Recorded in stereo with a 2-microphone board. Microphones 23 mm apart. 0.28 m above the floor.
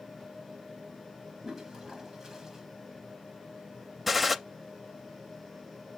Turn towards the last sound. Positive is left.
turn(degrees=-5)  # may be behind; listen again after turning